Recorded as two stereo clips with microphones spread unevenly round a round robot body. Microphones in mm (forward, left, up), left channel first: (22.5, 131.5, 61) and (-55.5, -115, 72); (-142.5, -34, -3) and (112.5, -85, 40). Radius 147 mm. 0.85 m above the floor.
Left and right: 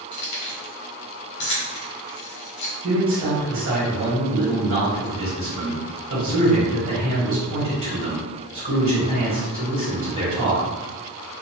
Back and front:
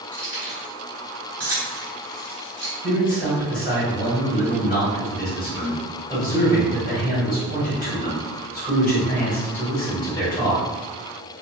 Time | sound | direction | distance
0.1 | keys jangling | 85° left | 1.4 m
2.8 | a man speaking | 140° right | 1.3 m